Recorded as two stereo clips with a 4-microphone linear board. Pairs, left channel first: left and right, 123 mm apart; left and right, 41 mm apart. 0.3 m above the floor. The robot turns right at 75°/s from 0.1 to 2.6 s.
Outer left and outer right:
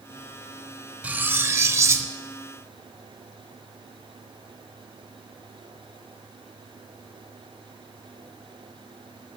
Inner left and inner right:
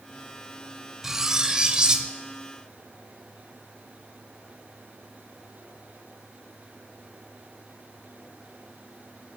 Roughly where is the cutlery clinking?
Centre.